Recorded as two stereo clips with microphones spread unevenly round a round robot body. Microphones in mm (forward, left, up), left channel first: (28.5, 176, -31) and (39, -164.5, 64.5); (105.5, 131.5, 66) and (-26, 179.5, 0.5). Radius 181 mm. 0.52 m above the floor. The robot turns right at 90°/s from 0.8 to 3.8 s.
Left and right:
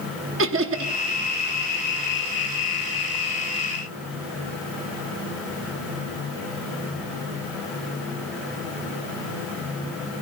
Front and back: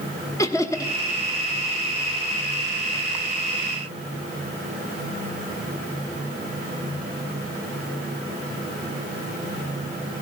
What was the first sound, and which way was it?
Laughter, 125° right.